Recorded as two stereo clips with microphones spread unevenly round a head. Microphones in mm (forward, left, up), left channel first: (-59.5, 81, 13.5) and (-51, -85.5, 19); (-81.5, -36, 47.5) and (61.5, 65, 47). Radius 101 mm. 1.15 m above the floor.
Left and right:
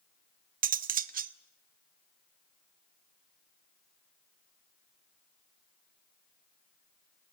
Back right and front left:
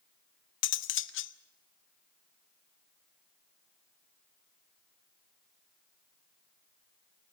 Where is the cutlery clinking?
120° right, 0.8 m.